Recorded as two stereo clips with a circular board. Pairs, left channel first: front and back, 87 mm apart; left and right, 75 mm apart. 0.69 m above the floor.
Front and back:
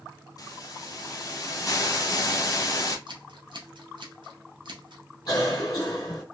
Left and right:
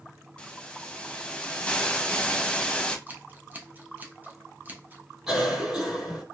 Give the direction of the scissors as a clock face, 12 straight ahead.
5 o'clock.